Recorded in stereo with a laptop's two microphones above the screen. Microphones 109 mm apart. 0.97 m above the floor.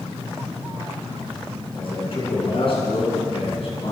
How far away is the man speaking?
About 9 m.